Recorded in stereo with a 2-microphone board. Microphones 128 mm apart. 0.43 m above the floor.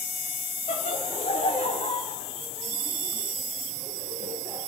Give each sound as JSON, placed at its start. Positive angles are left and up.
{"t": 0.7, "sound": "laughter", "side_deg": 60, "distance_m": 3.0}